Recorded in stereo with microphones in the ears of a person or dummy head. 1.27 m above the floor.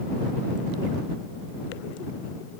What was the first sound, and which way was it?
Only background noise.